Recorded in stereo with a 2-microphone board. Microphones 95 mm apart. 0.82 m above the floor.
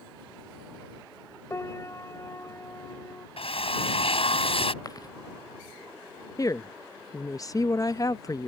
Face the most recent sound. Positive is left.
turn(degrees=35)  # may be behind; listen again after turning